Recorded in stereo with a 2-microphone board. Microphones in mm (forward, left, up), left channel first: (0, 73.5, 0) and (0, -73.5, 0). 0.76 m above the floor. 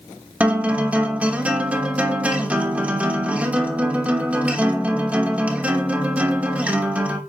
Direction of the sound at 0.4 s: 10° right (ahead or behind).